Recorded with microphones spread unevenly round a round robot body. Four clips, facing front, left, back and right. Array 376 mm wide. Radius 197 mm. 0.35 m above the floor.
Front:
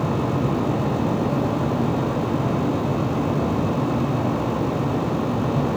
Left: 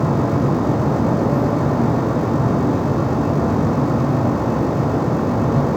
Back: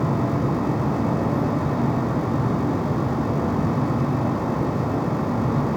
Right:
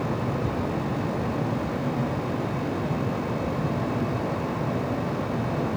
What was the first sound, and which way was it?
Only background noise.